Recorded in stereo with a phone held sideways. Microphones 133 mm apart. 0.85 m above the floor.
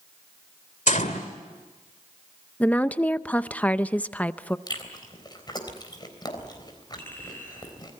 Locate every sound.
0.9 s a gunshot: 70° left (ahead or behind), 2 m
2.6 s a woman speaking: 10° left (ahead or behind), 0.6 m
4.7 s chewing: 35° left (ahead or behind), 3.5 m
7.0 s a clink: 15° left (ahead or behind), 8.5 m